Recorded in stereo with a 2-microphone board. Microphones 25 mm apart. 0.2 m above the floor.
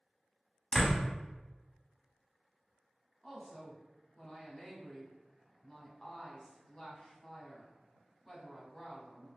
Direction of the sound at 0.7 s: Centre (ahead or behind).